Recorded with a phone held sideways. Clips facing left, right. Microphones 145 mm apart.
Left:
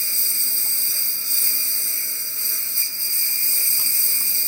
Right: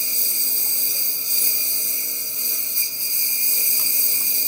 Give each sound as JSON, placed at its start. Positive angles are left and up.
{"t": 0.0, "sound": "a lawn mower", "side_deg": -20}